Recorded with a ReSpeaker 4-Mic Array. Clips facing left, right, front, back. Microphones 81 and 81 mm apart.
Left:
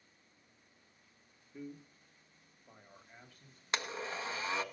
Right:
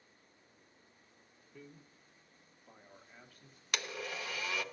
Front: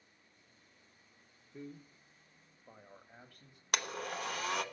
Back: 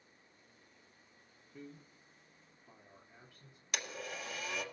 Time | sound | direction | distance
1.5 | a man speaking | 35° left | 0.9 m
3.7 | a blender | 30° left | 1.0 m